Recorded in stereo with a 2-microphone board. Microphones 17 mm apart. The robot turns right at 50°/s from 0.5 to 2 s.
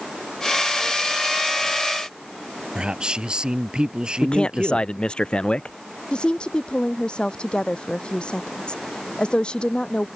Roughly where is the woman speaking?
Left.